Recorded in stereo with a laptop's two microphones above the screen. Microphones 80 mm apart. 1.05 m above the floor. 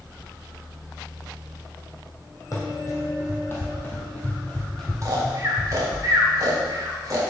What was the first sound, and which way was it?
Running footsteps, 40° left (ahead or behind).